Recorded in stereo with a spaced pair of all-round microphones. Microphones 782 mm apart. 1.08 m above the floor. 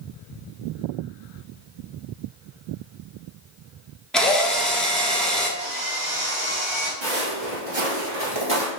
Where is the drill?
Centre (ahead or behind), 0.6 m.